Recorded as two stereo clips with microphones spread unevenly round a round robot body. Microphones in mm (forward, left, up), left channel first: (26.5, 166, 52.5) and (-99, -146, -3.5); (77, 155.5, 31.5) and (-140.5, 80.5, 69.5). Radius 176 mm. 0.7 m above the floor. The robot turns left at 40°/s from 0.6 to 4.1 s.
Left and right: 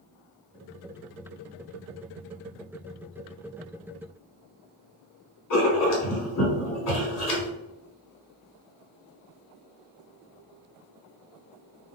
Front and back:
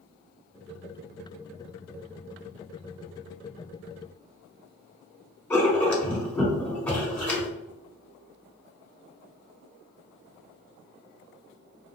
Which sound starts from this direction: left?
Writing, at 5.5 s.